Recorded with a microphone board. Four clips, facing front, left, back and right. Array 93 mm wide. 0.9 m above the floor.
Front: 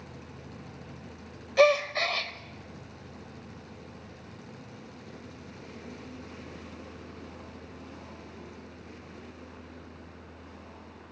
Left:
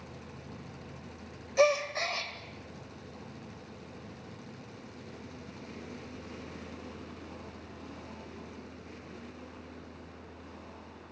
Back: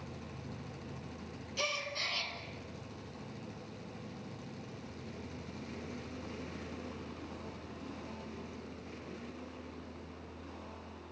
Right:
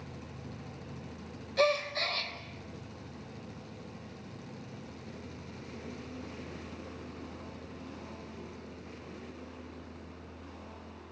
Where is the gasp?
15° left, 2 m.